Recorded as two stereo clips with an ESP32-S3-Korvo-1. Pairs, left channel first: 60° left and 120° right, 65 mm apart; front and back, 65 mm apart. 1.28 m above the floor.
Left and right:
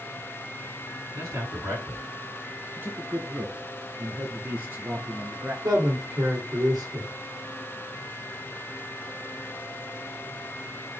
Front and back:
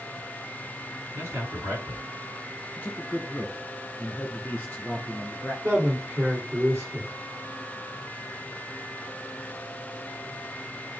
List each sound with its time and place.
1.1 s a man speaking: 135° right, 3 m
2.8 s a man speaking: 75° right, 1.2 m
5.6 s a man speaking: 130° right, 2.5 m